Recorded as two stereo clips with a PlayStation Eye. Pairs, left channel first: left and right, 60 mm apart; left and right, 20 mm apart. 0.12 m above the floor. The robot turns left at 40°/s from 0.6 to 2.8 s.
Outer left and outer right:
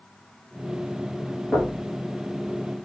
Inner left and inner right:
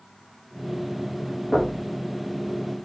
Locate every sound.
1.5 s knocking: centre (ahead or behind), 2.5 m; by 1.8 s 10° left (ahead or behind), 2.5 m